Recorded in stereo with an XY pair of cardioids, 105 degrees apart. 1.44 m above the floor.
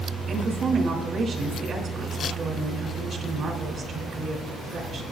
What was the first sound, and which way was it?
A woman speaking, 55° right.